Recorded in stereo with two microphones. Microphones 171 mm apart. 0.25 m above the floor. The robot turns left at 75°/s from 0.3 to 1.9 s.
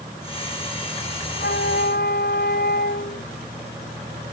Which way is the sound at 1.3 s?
115° left.